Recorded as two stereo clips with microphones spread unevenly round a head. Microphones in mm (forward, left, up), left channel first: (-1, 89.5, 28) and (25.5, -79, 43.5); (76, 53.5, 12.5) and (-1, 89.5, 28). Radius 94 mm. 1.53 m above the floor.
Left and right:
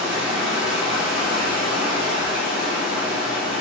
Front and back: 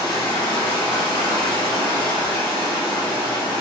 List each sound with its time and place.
0.0 s running water: straight ahead, 1.1 m